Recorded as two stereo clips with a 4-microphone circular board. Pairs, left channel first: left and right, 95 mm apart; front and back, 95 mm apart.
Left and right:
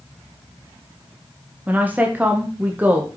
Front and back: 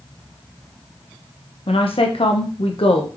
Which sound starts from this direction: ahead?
A woman speaking, at 1.7 s.